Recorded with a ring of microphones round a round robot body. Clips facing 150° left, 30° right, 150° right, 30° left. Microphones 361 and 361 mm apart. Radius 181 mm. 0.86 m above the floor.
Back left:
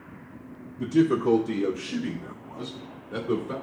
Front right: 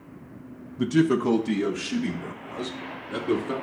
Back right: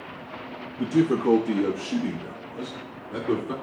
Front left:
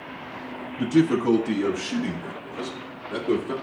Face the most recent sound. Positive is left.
turn(degrees=-55)